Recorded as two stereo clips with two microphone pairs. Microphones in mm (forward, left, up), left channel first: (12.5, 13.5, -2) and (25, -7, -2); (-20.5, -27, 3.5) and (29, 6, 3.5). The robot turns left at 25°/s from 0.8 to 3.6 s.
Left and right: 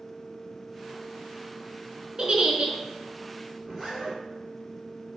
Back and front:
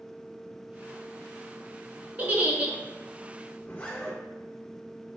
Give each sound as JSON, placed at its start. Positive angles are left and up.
{"t": 2.2, "sound": "a giggle", "azimuth_deg": -20, "distance_m": 0.7}
{"t": 3.6, "sound": "a zipper", "azimuth_deg": -130, "distance_m": 1.5}